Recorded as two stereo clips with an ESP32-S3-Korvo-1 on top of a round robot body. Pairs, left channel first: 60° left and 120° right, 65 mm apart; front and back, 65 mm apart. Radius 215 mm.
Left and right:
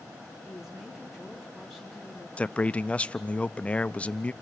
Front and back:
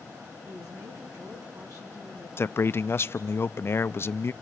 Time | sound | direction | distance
0.4 | a woman speaking | 155° left | 5 m
2.4 | a man speaking | 5° left | 0.7 m